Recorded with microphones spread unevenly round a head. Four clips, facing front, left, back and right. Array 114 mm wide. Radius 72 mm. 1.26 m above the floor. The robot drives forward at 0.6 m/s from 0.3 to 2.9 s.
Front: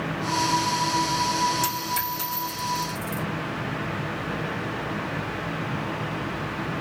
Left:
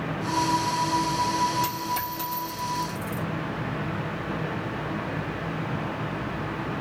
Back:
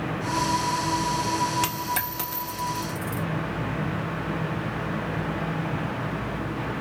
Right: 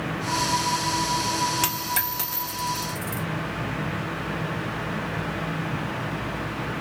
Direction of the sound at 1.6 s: 130° right.